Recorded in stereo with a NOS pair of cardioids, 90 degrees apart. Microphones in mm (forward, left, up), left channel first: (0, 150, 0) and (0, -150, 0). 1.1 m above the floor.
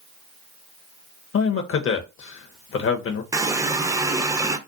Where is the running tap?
10° right, 0.5 m.